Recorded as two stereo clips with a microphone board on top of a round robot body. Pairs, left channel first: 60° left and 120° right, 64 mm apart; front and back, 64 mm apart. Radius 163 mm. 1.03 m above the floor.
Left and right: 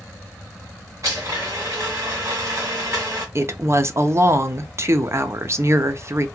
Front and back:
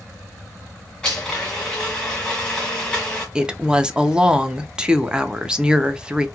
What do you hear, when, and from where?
1.0 s a blender: 75° right, 1.5 m
3.4 s a woman speaking: 110° right, 0.7 m